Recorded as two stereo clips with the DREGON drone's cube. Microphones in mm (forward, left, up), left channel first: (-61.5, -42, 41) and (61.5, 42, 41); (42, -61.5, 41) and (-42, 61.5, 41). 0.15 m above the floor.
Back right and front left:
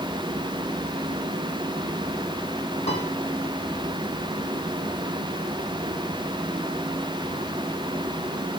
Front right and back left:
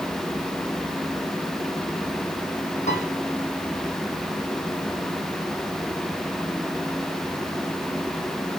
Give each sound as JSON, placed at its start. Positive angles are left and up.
{"t": 2.9, "sound": "a piano", "azimuth_deg": -100, "distance_m": 4.5}